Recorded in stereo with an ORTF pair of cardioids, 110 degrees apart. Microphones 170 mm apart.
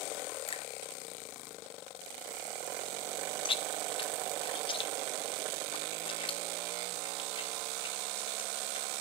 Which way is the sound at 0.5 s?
30° left.